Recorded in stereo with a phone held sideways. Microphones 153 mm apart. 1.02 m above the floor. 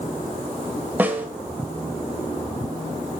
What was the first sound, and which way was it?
A snare drum, 10° right (ahead or behind).